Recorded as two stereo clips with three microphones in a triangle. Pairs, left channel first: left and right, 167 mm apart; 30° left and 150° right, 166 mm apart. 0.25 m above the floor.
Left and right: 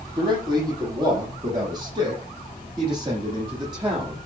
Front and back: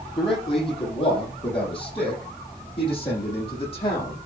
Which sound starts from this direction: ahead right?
A man speaking, at 0.2 s.